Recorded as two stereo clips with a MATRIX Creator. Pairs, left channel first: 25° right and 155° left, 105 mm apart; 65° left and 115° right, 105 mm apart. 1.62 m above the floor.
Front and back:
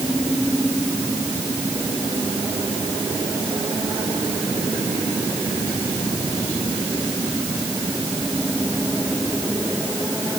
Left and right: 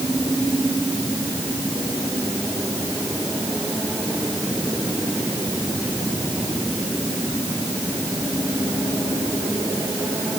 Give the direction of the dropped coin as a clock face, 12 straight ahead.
No dropped coin in this recording.